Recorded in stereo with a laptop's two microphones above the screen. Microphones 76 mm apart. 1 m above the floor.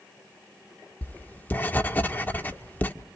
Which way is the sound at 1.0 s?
25° left (ahead or behind).